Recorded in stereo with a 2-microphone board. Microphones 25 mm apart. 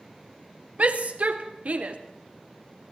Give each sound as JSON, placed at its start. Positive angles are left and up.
{"t": 0.8, "sound": "a shout", "side_deg": -60, "distance_m": 2.0}